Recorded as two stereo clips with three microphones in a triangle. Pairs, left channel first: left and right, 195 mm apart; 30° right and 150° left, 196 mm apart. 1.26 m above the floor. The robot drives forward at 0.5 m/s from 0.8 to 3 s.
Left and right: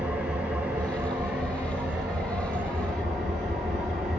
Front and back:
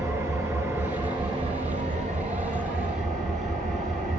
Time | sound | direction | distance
0.0 | an engine running | 160° right | 1.0 m